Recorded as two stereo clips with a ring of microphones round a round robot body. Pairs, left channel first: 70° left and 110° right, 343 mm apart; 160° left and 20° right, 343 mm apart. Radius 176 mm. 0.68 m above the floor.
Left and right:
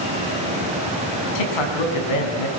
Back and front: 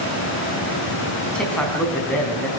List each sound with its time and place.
1.4 s a man speaking: 70° left, 5 m